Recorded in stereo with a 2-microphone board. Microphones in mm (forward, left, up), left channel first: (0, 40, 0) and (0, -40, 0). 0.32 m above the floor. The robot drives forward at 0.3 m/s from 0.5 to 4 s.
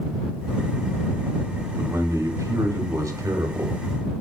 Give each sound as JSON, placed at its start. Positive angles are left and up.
{"t": 1.8, "sound": "a man speaking", "side_deg": -40, "distance_m": 1.2}